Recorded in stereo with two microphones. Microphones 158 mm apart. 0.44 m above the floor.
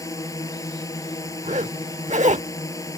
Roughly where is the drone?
Left.